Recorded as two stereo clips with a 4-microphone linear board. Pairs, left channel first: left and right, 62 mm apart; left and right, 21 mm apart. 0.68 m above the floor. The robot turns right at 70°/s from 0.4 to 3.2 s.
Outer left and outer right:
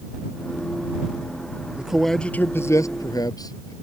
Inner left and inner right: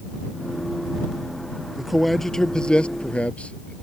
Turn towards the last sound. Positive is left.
turn(degrees=85)